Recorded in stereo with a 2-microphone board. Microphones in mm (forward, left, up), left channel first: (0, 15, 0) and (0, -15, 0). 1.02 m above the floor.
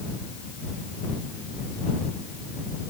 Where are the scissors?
I don't hear scissors.